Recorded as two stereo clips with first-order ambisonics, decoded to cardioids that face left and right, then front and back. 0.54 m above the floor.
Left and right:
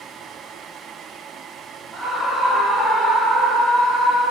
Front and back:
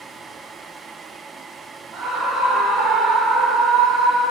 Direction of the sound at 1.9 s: 160° right.